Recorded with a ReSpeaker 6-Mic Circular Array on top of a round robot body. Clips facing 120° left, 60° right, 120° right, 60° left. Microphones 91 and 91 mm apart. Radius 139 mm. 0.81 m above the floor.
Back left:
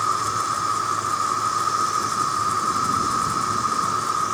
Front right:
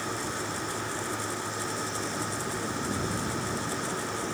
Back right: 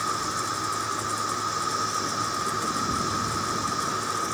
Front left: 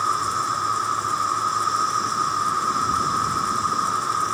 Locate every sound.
0.0 s an insect: 110° left